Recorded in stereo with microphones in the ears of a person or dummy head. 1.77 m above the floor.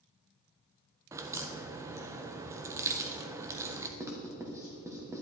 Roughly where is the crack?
Centre.